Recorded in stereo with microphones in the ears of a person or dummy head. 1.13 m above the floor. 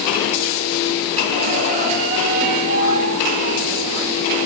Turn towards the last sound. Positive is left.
turn(degrees=-45)  # may be behind; listen again after turning